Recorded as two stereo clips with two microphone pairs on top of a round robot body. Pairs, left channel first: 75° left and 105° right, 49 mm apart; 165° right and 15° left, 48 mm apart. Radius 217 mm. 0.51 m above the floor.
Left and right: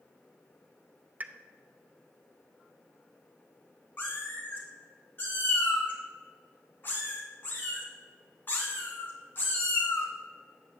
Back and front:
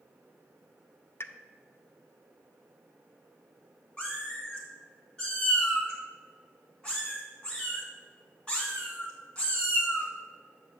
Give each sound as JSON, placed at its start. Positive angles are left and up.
{"t": 1.2, "sound": "a pop", "azimuth_deg": -160, "distance_m": 0.7}
{"t": 4.0, "sound": "a cat meowing", "azimuth_deg": 125, "distance_m": 1.7}